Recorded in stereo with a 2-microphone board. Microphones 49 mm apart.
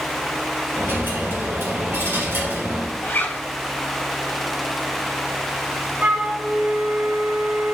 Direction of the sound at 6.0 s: 30° right (ahead or behind).